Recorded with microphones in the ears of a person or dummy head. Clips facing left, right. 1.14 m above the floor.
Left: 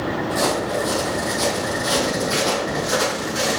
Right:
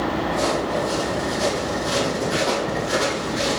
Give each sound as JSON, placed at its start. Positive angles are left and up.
{"t": 0.3, "sound": "footsteps", "side_deg": 60, "distance_m": 2.0}